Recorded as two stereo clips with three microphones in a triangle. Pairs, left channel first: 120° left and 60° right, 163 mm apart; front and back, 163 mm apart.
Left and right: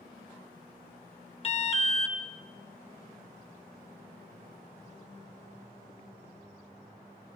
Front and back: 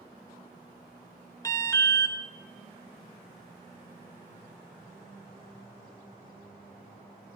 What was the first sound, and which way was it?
An alarm, 70° left.